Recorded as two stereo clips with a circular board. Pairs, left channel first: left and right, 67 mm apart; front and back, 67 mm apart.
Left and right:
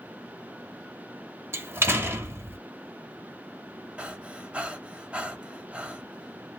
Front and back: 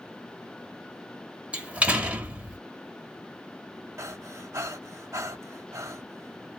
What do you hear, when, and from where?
1.5 s a door slam: 120° right, 0.9 m
4.0 s breathing: 155° right, 0.8 m